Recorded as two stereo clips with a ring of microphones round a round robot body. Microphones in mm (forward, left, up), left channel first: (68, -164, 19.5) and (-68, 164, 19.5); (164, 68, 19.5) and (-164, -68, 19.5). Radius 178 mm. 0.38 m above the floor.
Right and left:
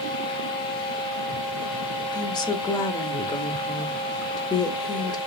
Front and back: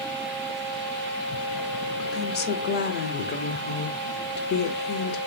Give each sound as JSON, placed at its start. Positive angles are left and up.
{"t": 2.1, "sound": "a woman speaking", "azimuth_deg": 0, "distance_m": 0.9}